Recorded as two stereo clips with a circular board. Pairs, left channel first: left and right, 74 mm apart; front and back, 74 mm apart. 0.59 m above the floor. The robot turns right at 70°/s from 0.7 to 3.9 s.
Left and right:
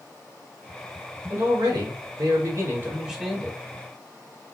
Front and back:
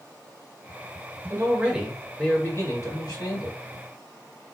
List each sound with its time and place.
1.3 s a man speaking: 135° right, 2 m; by 3.6 s 20° left, 2 m